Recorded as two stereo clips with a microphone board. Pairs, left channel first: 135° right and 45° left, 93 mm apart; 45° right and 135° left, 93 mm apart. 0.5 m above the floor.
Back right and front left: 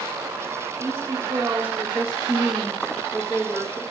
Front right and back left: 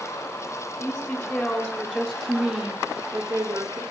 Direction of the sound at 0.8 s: 5° left.